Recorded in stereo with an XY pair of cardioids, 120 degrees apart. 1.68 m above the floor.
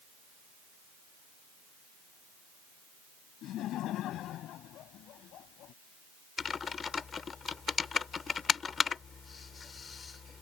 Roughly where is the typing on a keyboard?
Ahead left.